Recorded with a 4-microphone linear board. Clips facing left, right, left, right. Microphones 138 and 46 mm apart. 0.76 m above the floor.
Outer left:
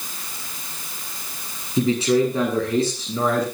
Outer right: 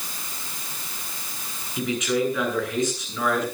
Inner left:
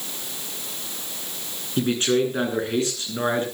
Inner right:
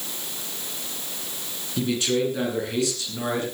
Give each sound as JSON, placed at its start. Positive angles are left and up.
{"t": 1.8, "sound": "a man speaking", "side_deg": 35, "distance_m": 10.0}